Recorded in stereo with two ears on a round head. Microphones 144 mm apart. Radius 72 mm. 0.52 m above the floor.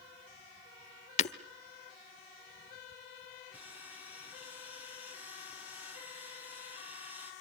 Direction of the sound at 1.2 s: 45° left (ahead or behind).